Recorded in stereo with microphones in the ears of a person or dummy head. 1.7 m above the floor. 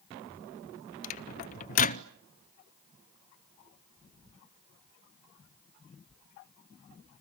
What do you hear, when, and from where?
1.0 s a microwave: 35° left (ahead or behind), 0.6 m